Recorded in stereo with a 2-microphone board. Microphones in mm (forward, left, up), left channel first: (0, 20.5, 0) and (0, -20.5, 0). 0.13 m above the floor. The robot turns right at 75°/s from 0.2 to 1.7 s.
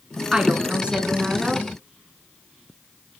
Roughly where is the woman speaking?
Centre.